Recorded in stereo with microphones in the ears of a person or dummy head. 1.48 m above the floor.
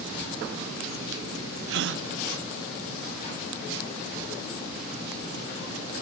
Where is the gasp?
70° right (ahead or behind), 0.7 m.